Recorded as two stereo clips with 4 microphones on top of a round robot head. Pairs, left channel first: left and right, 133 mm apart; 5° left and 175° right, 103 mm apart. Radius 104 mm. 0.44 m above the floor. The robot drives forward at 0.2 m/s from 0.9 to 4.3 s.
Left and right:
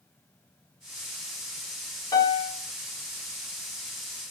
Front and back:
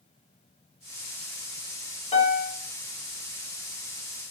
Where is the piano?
30° left, 0.6 m; by 2.6 s 35° left, 0.5 m.